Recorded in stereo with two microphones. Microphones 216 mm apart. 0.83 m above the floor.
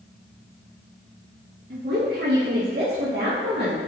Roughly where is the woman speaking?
Right.